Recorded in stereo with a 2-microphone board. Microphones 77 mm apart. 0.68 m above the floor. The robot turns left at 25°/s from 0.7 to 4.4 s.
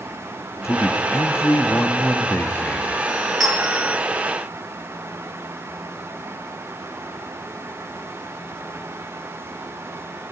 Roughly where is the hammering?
No hammering in this recording.